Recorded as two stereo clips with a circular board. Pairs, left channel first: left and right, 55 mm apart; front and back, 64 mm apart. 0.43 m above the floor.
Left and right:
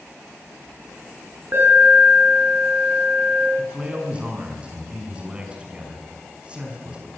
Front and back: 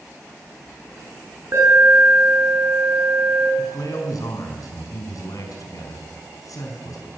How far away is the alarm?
About 7.5 m.